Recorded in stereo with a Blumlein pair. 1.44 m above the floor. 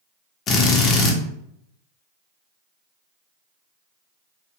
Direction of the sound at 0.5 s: 30° left.